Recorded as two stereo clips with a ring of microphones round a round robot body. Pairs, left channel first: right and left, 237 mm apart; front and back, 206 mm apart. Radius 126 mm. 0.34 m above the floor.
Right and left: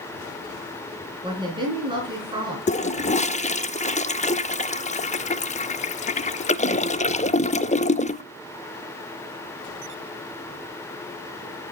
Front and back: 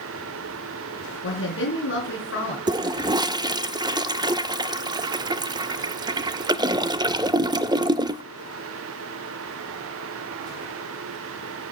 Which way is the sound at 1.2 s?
20° left.